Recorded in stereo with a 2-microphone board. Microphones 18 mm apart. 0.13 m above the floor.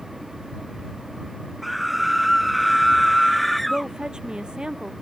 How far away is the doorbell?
No doorbell in this recording.